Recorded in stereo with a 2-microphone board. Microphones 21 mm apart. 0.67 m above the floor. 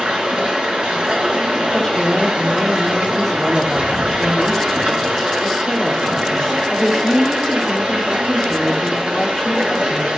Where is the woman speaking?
20° left (ahead or behind), 1.8 m.